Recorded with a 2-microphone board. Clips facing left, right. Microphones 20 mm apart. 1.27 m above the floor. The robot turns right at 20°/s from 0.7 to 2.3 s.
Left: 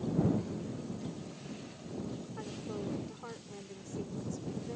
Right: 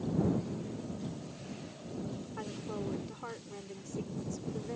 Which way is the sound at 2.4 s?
20° right (ahead or behind).